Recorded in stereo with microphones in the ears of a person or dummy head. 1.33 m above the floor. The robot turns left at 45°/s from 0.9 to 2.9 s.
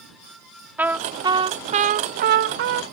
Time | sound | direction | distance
0.8 | a trumpet | 5° right | ?